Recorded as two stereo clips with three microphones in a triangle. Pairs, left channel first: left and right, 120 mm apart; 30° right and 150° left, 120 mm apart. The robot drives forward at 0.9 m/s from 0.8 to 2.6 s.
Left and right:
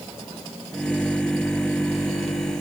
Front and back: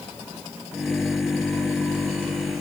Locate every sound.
Only background noise.